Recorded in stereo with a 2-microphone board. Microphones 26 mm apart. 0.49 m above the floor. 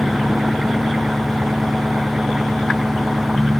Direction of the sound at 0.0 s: 25° right (ahead or behind).